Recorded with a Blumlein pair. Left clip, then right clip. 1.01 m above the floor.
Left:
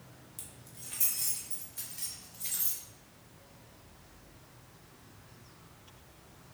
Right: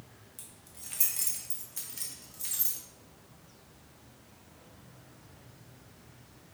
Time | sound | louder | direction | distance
0.4 | keys jangling | even | 5° left | 0.9 m